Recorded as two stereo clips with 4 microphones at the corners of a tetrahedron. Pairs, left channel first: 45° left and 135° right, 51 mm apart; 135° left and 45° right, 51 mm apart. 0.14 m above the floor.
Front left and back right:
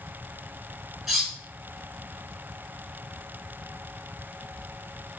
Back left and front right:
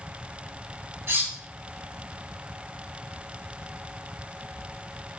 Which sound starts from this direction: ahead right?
Cutlery clinking, at 1.1 s.